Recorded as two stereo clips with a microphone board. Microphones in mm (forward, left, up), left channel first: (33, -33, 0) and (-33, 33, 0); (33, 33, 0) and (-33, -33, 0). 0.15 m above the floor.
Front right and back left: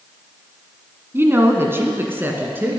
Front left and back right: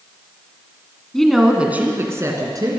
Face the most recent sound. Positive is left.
turn(degrees=-160)